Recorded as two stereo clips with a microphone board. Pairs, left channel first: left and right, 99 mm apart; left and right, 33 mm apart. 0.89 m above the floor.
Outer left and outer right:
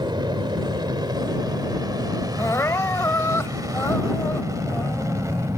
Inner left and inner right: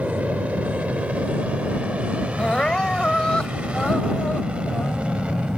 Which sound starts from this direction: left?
Crying, at 2.4 s.